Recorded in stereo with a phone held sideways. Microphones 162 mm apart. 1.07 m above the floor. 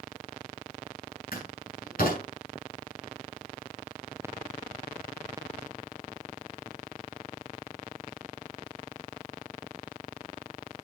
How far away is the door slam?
About 8 m.